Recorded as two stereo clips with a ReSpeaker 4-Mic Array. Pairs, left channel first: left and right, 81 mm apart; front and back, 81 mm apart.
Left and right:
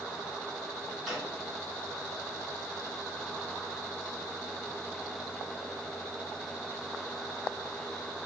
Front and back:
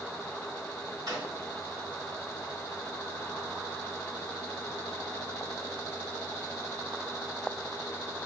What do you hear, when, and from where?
1.1 s a drawer: straight behind, 1.4 m